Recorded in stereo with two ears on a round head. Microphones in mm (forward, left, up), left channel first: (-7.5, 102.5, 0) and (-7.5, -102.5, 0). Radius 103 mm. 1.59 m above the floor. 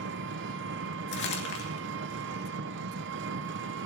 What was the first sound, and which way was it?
An engine running, 55° right (ahead or behind).